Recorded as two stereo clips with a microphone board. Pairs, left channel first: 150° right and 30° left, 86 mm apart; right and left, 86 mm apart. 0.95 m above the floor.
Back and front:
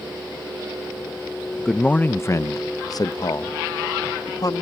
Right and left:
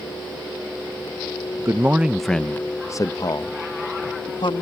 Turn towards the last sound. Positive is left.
turn(degrees=-110)